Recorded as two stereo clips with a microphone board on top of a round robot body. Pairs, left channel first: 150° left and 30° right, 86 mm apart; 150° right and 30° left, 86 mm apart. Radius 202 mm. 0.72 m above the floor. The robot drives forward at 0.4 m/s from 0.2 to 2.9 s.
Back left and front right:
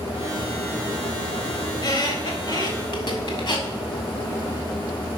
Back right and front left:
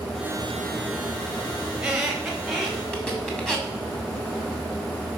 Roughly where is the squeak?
Left.